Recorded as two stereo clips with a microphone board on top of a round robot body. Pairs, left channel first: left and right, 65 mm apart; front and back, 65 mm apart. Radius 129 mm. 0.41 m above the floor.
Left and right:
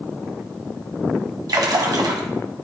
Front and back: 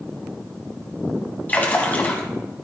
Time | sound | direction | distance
1.5 | a splash | 65° right | 1.9 m